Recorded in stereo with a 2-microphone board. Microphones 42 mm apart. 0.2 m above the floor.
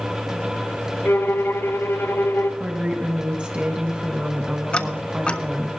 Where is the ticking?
25° left (ahead or behind), 0.5 m.